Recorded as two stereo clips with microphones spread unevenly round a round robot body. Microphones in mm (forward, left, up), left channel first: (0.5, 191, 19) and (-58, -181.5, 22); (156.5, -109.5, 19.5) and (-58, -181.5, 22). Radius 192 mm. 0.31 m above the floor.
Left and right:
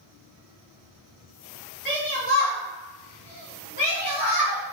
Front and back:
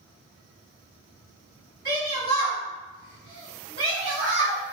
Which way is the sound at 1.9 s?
175° left.